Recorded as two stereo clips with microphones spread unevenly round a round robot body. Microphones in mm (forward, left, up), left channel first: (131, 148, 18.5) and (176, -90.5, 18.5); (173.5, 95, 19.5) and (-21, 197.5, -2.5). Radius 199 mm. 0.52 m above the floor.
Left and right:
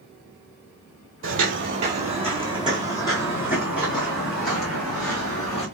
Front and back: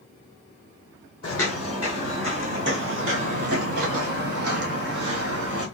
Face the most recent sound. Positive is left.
turn(degrees=140)